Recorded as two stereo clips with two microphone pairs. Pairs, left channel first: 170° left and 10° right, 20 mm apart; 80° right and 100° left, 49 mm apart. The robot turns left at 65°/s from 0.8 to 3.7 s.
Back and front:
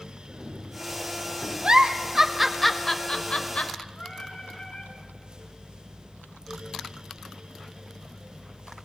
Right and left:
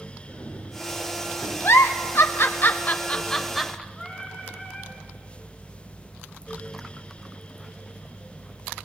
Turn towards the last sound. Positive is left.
turn(degrees=-175)